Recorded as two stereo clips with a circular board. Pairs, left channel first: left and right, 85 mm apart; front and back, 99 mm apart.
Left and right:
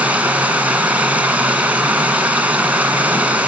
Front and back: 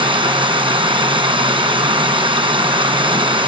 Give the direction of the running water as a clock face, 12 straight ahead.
5 o'clock.